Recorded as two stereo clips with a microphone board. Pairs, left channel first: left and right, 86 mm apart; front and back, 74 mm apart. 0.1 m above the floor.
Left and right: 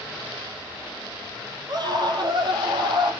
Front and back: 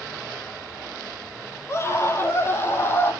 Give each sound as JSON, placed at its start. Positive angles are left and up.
{"t": 1.7, "sound": "a scream", "azimuth_deg": -55, "distance_m": 4.5}